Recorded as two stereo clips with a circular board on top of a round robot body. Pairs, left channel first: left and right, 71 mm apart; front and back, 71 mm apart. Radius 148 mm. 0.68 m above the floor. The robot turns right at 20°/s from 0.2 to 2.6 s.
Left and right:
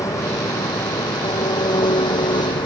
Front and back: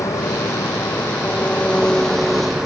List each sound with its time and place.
0.0 s an engine running: 45° left; by 2.6 s 95° left